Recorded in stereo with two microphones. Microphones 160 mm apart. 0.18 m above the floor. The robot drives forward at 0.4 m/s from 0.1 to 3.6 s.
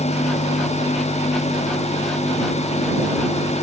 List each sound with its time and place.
Only background noise.